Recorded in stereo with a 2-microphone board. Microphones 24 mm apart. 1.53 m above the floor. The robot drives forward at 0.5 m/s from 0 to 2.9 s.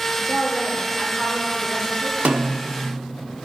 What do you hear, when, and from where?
0.2 s a woman speaking: 75° right (ahead or behind), 2.5 m; by 2.1 s 55° right (ahead or behind), 2.5 m
2.2 s a snare drum: 85° right, 0.9 m; by 2.8 s 75° right (ahead or behind), 0.9 m